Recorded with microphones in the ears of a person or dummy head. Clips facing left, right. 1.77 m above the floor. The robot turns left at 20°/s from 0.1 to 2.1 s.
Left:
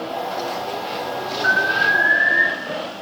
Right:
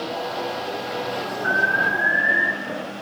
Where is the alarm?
85° left, 3 m; by 2.4 s 70° left (ahead or behind), 3 m.